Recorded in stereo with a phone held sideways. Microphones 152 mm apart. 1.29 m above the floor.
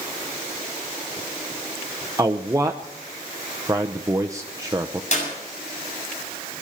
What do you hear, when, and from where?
2.2 s a man speaking: 20° right (ahead or behind), 0.7 m
5.1 s a clap: 50° left (ahead or behind), 7 m